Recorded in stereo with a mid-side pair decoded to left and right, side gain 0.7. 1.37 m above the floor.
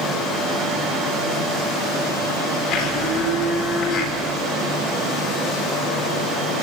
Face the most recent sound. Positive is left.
turn(degrees=55)